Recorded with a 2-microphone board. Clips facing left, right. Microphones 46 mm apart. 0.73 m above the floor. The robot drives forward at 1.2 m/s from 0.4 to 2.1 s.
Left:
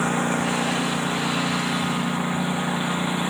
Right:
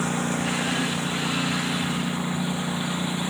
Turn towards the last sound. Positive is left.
turn(degrees=25)  # may be behind; listen again after turning